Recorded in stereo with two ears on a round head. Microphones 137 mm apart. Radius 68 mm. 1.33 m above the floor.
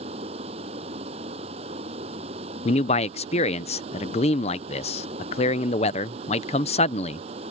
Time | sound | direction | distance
0.0 | running water | 40° right (ahead or behind) | ?
2.6 | a man speaking | 40° left (ahead or behind) | ?